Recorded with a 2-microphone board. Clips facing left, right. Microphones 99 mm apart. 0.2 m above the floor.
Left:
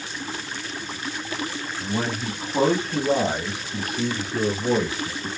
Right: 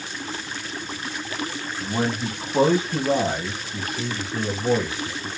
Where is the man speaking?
20° right (ahead or behind), 1.4 m; by 5.3 s 20° left (ahead or behind), 2 m.